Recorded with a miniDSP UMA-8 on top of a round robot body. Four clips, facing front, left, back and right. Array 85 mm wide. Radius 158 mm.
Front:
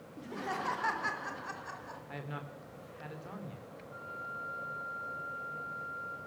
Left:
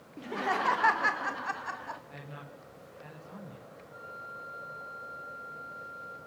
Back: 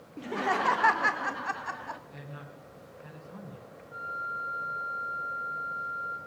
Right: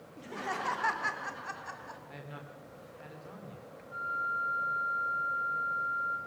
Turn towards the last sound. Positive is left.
turn(degrees=-125)